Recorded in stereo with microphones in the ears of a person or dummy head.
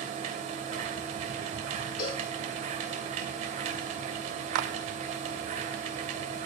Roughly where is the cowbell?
Centre.